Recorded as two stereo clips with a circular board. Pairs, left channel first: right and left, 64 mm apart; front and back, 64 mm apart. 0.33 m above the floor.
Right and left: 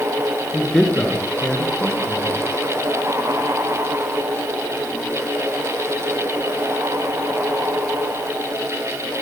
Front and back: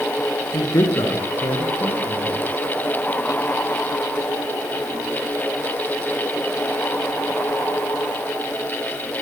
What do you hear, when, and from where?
0.5 s a man speaking: 10° right, 4 m